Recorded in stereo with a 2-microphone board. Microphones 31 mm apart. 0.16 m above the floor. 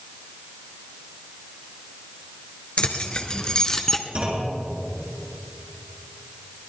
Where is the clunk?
35° right (ahead or behind), 3 m.